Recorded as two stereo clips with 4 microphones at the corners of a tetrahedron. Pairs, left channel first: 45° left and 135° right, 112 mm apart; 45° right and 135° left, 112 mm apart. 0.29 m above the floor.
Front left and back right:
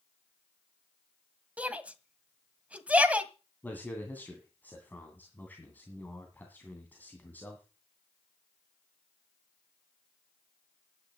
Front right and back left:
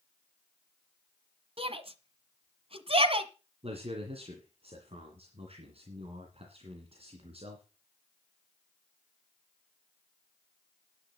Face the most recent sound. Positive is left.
turn(degrees=120)